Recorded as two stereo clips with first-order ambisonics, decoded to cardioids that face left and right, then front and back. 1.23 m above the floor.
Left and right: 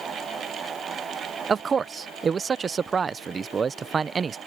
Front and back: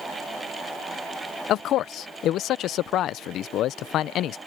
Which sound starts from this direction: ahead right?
A man speaking, at 1.5 s.